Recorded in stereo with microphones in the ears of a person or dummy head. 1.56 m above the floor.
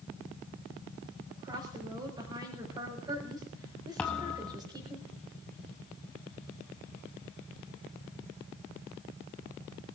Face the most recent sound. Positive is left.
turn(degrees=5)  # may be behind; listen again after turning